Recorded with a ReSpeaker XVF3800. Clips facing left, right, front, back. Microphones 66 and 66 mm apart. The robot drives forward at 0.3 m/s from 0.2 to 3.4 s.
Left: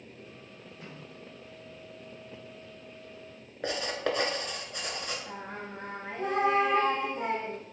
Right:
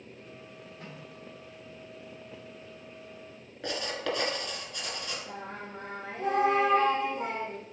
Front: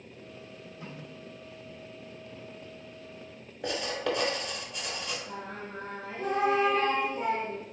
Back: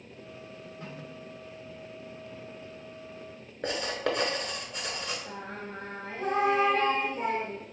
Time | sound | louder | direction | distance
0.8 | a snare drum | even, back 1 dB | 130° right | 1.9 m
3.6 | writing | left 2 dB, back 1 dB | 150° left | 0.8 m
5.3 | singing | even, even | 150° left | 1.2 m